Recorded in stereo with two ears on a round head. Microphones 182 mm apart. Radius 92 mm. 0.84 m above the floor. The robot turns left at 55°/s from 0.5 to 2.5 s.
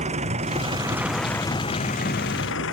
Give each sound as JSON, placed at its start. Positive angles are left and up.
{"t": 0.0, "sound": "an engine running", "azimuth_deg": -145}